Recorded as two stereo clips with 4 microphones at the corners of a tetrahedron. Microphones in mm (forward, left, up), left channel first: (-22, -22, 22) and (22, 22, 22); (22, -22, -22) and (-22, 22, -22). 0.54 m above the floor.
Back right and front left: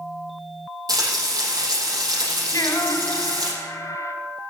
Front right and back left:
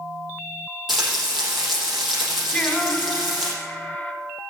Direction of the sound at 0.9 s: 50° left.